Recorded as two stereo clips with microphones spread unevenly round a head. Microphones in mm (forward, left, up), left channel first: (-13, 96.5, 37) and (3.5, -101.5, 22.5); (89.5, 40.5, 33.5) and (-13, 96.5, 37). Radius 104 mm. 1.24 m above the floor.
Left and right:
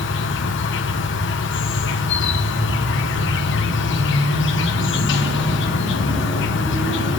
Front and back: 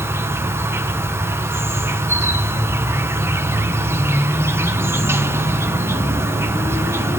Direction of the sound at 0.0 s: 85° left.